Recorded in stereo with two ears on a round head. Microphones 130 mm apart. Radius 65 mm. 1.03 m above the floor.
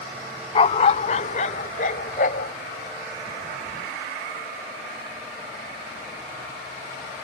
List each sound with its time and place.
0.6 s a dog barking: 35° left (ahead or behind); by 2.5 s 55° left (ahead or behind)